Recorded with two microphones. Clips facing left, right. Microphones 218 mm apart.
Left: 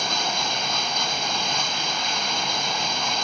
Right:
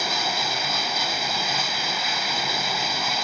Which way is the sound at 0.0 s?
5° right (ahead or behind).